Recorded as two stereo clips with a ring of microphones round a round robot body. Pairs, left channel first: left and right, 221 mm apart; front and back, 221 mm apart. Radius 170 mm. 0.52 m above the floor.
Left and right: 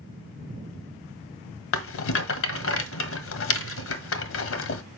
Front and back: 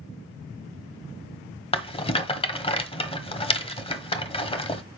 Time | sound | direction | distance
1.7 | a rattle | 65° left | 1.5 m